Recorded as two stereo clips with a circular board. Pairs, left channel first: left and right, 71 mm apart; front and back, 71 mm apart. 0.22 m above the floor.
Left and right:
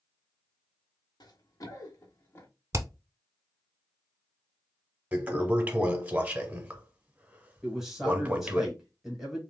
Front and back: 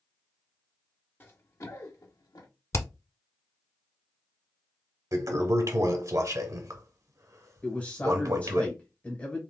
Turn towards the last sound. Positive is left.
turn(degrees=-15)